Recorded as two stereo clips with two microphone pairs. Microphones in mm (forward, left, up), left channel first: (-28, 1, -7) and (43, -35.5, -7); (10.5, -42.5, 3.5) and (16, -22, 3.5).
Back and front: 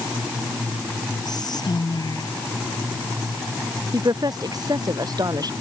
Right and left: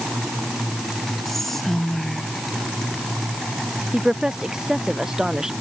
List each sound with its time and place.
1.2 s whispering: 175° left
3.9 s a woman speaking: 10° left